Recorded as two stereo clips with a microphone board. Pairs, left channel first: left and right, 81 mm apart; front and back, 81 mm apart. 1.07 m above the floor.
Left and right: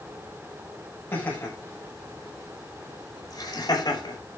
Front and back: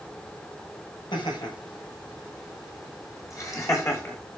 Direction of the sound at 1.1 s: 25° left.